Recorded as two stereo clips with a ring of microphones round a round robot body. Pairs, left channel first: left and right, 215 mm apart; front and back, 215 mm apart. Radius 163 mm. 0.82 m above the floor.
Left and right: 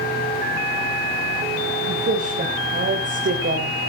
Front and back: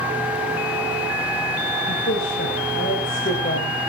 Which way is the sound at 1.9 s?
45° right.